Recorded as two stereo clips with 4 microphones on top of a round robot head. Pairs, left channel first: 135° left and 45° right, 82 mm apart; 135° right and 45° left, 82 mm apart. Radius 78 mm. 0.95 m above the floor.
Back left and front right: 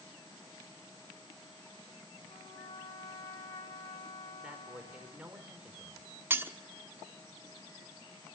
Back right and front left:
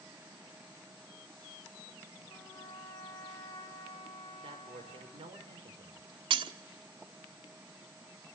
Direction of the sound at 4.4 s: 30° left.